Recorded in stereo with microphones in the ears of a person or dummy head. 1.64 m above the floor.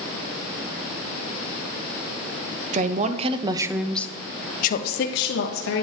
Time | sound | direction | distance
2.7 | a woman speaking | 50° right (ahead or behind) | 1.0 m